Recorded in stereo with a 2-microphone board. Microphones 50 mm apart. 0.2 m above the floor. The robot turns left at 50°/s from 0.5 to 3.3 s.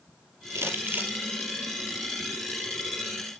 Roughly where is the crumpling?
Right.